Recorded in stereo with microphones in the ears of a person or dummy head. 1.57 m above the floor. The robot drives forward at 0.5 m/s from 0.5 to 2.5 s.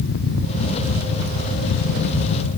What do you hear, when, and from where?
Only background noise.